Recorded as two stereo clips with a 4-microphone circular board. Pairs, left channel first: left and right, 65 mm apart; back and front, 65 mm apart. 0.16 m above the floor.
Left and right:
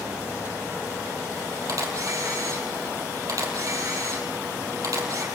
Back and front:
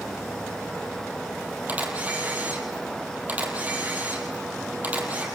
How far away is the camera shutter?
About 4.5 m.